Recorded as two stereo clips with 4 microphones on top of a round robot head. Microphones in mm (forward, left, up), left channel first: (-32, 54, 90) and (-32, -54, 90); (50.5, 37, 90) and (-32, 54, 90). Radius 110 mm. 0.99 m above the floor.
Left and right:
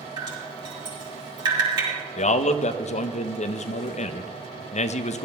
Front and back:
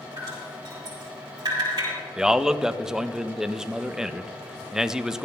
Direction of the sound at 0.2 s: 140° right.